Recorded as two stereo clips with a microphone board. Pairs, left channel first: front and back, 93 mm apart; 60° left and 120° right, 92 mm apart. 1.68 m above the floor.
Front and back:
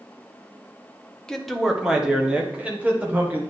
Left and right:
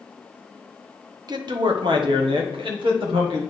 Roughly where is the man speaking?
Right.